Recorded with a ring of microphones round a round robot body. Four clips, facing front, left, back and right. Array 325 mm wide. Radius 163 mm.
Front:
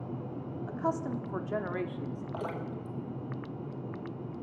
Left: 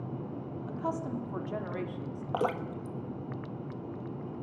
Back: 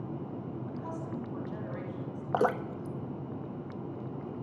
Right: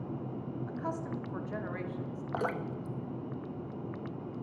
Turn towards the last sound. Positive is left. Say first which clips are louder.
# left 3 dB, back 11 dB
turn(degrees=160)